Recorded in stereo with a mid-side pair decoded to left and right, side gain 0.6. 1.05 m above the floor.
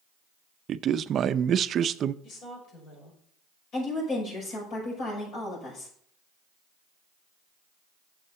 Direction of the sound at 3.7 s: 60° left.